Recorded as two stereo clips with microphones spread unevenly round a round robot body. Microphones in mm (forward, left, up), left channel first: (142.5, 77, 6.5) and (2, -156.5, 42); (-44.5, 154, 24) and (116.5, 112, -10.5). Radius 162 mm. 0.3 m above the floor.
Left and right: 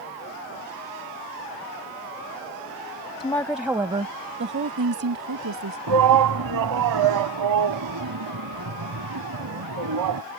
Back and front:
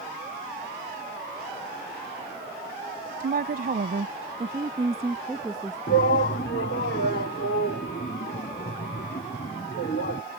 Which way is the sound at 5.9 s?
140° right.